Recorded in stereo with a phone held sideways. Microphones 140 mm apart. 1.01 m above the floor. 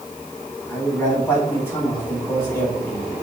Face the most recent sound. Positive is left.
turn(degrees=15)  # may be behind; listen again after turning